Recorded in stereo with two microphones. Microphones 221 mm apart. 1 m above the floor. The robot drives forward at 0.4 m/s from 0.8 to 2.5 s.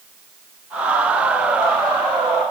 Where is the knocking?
I don't hear knocking.